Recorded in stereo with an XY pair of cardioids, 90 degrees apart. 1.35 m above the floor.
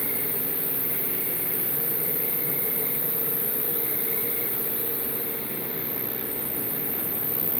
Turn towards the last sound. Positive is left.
turn(degrees=5)